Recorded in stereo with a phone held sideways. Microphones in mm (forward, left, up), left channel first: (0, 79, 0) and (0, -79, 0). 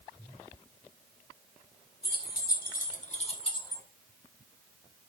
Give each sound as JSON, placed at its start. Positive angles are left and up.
{"t": 2.0, "sound": "keys jangling", "side_deg": 85, "distance_m": 1.4}